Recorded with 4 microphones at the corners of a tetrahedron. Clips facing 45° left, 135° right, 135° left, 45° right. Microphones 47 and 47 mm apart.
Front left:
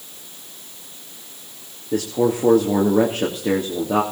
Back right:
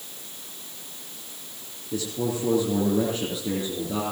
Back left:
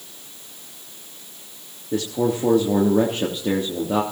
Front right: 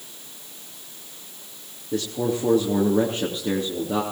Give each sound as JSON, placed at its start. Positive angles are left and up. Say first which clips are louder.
{"t": 1.9, "sound": "a man speaking", "louder": "front left 8 dB, back left 3 dB", "azimuth_deg": 70, "distance_m": 3.0}